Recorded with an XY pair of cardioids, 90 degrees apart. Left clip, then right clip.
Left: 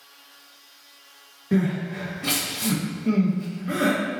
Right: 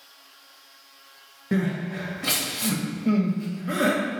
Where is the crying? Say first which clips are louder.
Left 2 dB; 30° right, 1.3 m.